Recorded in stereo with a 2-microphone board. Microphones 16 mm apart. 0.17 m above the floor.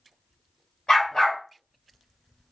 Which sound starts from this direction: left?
A dog barking, at 0.9 s.